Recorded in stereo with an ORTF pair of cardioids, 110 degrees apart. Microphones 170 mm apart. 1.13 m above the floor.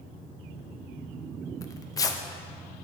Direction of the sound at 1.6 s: 20° left.